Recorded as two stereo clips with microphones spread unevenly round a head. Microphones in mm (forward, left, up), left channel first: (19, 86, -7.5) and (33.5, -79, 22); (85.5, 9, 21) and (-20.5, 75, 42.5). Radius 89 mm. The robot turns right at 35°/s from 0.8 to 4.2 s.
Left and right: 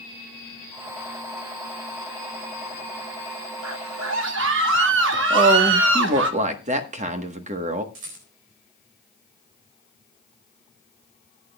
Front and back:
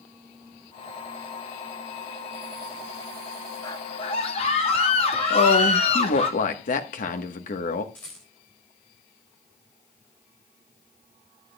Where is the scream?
95° right, 1.7 m; by 6.3 s 75° right, 1.7 m.